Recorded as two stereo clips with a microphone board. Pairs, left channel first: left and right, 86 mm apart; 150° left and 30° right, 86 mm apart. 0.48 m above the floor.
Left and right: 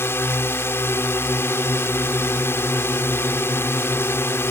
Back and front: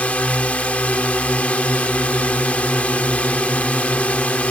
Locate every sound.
0.0 s a drone: 90° left